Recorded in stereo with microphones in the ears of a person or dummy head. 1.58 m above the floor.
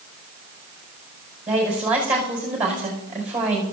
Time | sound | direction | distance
1.5 | a woman speaking | 10° right (ahead or behind) | 5.5 m